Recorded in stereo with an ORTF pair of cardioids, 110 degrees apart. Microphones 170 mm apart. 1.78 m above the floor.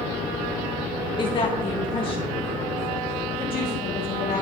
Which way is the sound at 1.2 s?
30° left.